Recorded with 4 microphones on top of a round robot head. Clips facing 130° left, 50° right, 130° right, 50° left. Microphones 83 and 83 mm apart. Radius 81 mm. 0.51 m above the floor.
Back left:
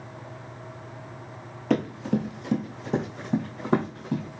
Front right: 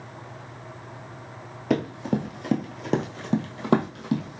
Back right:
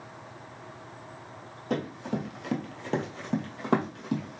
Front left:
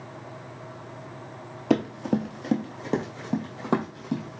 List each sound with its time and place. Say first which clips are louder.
1.7 s running footsteps: even, front left 7 dB; 30° left, 0.7 m; by 4.4 s 40° right, 1.6 m